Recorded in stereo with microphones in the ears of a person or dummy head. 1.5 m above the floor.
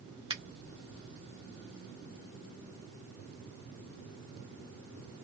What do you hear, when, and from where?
0.3 s a finger snap: 20° right (ahead or behind), 0.7 m